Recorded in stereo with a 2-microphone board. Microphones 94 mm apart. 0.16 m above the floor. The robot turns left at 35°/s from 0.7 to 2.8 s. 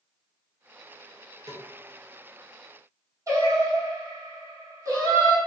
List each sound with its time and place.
1.5 s a snare drum: 40° right (ahead or behind), 0.8 m; by 1.7 s 50° right (ahead or behind), 0.8 m
3.3 s singing: 35° right (ahead or behind), 1.0 m